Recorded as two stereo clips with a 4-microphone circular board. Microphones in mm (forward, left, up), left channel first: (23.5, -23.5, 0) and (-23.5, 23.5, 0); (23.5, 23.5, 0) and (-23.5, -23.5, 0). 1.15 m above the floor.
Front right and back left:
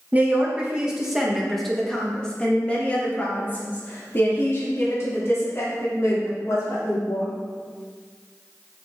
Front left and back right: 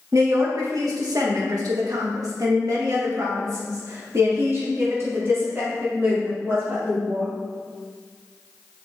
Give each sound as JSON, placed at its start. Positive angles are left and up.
{"t": 0.1, "sound": "a woman speaking", "azimuth_deg": -165, "distance_m": 1.5}